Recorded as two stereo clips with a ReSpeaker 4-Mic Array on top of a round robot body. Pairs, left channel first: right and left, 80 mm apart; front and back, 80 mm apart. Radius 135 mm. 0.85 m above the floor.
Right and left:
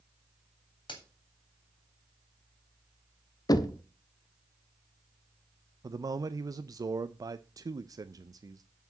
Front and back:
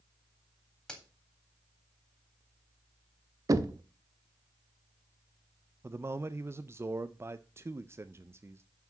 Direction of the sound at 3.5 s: 130° right.